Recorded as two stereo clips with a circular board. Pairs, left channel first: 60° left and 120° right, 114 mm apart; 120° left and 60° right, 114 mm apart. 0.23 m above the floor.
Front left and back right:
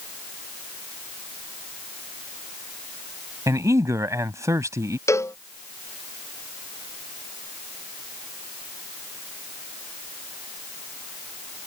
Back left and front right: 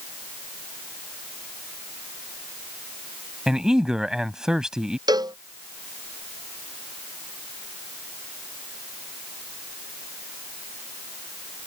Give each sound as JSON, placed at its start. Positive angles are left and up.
{"t": 3.5, "sound": "a man speaking", "azimuth_deg": -140}
{"t": 5.1, "sound": "a cowbell", "azimuth_deg": -5}